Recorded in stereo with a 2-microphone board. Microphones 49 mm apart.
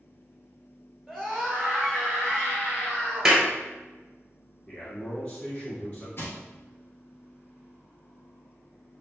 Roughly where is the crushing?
Left.